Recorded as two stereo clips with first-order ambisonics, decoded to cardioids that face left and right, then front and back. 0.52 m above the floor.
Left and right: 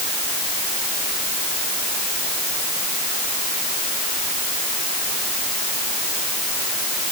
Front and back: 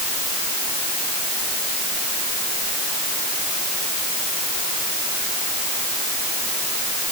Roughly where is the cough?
No cough in this recording.